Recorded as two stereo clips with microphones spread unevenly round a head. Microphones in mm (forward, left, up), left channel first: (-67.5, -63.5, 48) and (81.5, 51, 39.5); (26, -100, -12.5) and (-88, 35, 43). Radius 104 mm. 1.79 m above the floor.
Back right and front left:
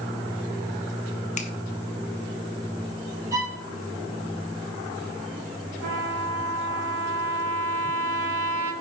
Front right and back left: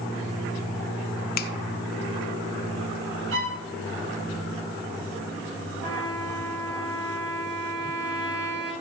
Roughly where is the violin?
Left.